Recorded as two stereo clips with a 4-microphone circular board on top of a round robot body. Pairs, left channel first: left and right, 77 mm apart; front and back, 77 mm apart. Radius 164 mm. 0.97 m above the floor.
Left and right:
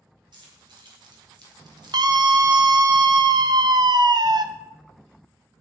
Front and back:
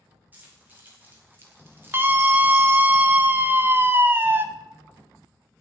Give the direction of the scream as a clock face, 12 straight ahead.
4 o'clock.